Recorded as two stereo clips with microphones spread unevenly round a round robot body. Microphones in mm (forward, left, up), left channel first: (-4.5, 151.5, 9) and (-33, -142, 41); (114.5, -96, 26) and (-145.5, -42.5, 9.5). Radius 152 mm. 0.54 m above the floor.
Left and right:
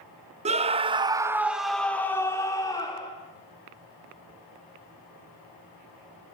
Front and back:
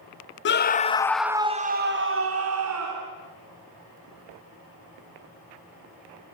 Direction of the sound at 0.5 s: 30° right.